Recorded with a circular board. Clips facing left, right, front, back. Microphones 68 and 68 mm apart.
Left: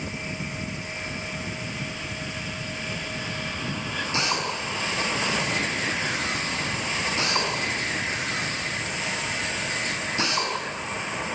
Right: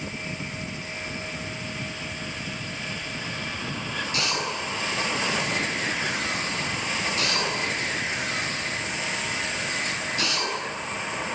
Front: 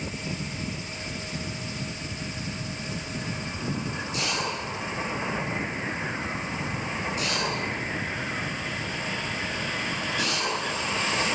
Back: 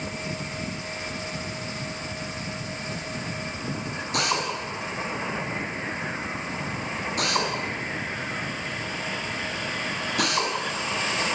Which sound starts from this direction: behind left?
A drill, at 4.1 s.